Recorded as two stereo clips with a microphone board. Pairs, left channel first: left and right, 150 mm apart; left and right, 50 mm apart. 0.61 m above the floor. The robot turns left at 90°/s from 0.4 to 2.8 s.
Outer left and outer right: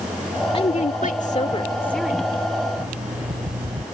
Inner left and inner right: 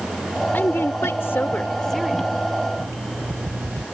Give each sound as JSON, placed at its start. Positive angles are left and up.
{"t": 0.5, "sound": "a woman speaking", "azimuth_deg": 135}
{"t": 2.8, "sound": "an alarm clock", "side_deg": -60}